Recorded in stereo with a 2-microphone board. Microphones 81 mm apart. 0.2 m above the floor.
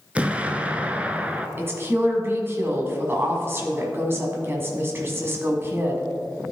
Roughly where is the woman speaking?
Right.